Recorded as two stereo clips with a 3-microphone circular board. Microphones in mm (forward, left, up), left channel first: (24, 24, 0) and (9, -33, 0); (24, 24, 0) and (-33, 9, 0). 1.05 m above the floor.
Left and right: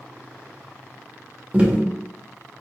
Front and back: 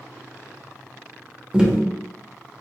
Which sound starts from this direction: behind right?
Tapping, at 1.5 s.